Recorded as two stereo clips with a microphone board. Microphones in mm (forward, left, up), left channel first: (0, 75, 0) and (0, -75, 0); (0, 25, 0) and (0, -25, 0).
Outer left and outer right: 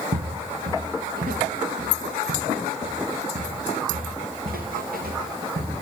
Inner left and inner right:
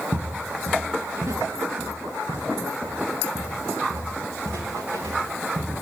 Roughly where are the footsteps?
Right.